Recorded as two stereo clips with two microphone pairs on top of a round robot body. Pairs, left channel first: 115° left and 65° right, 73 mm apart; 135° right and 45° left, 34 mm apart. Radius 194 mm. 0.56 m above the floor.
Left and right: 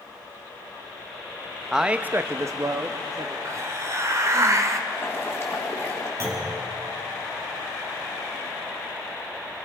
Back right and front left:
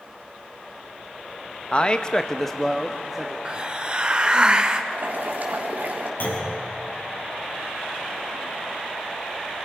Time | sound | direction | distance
1.7 | a man speaking | 165° right | 1.2 m
3.5 | a hiss | 20° right | 1.6 m
4.9 | boiling | 55° left | 3.5 m
6.2 | a clunk | 120° right | 7 m